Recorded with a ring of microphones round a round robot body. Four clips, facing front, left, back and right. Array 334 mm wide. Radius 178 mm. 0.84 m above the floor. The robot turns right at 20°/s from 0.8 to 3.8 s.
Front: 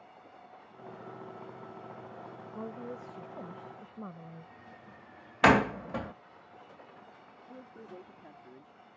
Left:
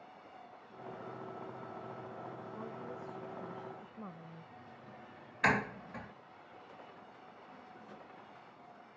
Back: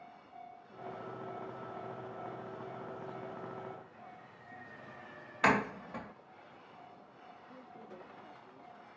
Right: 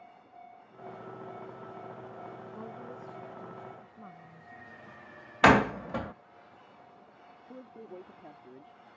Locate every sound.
2.5 s a woman speaking: 10° right; by 4.5 s 15° left
5.4 s a door slam: 60° right
7.5 s a man speaking: 70° right